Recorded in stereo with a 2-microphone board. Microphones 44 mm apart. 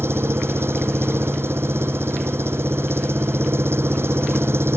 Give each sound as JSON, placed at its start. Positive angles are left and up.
{"t": 0.0, "sound": "an engine running", "side_deg": -65}